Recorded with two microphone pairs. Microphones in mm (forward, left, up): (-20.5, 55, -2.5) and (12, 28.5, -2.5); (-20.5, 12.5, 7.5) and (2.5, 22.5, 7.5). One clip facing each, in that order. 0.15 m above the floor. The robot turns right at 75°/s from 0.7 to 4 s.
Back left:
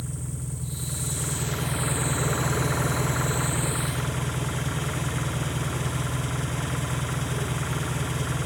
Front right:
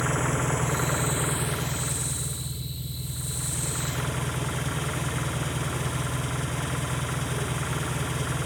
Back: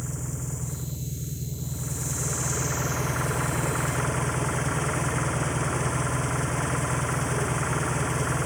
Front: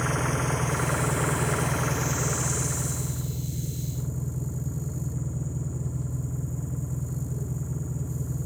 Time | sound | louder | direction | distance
0.0 | an engine running | front right 10 dB, front 9 dB | 20° right | ?